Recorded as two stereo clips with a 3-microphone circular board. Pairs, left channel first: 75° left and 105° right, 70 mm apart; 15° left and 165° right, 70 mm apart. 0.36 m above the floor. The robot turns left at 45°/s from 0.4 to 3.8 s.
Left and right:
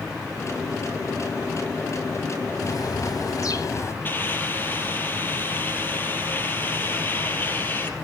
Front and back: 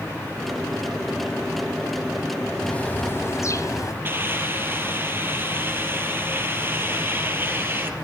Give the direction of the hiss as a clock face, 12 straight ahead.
7 o'clock.